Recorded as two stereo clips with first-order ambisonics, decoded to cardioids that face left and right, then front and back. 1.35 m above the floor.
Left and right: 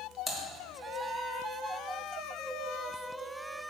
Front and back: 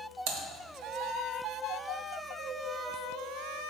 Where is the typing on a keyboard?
Straight behind, 1.2 m.